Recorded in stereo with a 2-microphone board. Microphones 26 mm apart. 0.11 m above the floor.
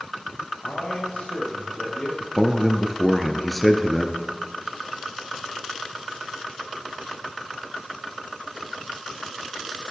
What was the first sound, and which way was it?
A man speaking, 65° left (ahead or behind).